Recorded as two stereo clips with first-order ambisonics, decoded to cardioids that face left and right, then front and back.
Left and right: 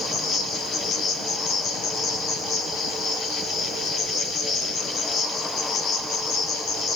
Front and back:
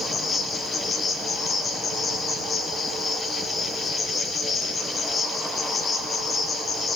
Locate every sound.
0.0 s an insect: 60° left, 0.9 m